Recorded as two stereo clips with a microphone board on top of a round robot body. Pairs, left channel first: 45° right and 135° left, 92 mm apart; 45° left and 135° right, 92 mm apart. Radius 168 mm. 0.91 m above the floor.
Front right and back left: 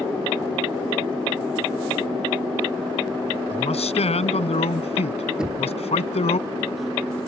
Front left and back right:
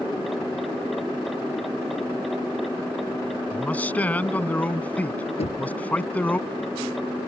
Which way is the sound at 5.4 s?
50° left.